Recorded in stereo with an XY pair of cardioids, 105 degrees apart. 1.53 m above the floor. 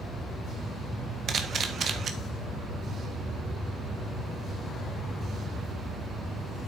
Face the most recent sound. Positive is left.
turn(degrees=-50)